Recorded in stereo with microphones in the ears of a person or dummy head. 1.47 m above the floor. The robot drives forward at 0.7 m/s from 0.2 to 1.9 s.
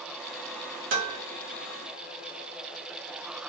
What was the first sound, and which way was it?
Dishes clattering, 35° right (ahead or behind).